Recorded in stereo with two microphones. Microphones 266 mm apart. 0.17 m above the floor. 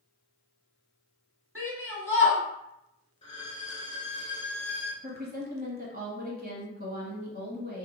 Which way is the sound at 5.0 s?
35° right (ahead or behind).